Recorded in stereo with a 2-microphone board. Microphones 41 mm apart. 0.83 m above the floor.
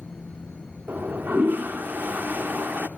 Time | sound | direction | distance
0.9 | a toilet flushing | 50° right (ahead or behind) | 1.0 m